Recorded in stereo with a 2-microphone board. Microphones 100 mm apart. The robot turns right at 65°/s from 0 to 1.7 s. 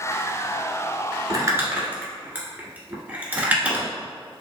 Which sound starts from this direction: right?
Crumpling, at 1.3 s.